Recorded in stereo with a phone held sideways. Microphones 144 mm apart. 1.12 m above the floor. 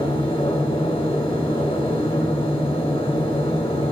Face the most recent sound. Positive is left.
turn(degrees=40)  # may be behind; listen again after turning